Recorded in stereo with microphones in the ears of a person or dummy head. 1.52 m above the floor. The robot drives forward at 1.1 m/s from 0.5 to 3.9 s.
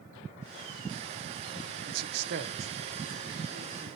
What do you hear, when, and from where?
1.9 s a man speaking: 55° right (ahead or behind), 0.7 m; by 3.9 s 15° right (ahead or behind), 2 m